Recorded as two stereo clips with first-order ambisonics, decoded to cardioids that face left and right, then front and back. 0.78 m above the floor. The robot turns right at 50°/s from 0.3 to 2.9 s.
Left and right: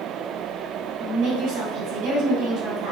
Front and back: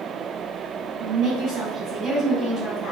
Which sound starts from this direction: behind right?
A woman speaking, at 1.0 s.